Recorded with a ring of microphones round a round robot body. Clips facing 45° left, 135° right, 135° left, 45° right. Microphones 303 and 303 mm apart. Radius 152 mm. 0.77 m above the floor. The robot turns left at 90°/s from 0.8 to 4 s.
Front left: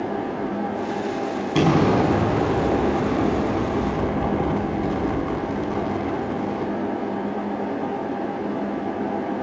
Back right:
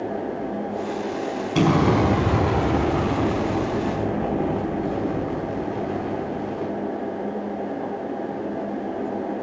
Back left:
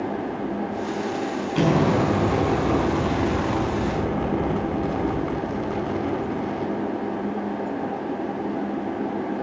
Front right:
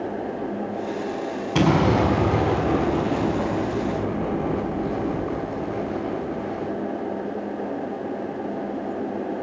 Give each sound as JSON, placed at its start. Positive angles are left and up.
{"t": 1.6, "sound": "an explosion", "azimuth_deg": -30, "distance_m": 5.5}